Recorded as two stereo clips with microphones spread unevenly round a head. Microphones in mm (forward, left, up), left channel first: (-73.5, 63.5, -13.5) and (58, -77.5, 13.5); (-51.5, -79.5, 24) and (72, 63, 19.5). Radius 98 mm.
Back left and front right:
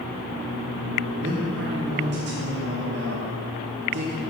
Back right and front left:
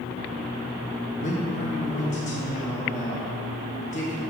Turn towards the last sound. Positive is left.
turn(degrees=-80)